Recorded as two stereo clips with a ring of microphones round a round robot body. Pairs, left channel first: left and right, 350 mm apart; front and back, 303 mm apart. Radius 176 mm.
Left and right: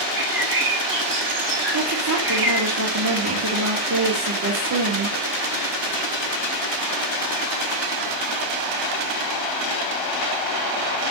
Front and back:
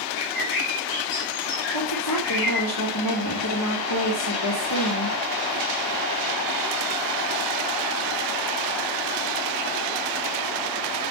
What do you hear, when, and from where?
0.1 s a bird: 30° right, 4 m
1.7 s a woman speaking: 40° right, 3 m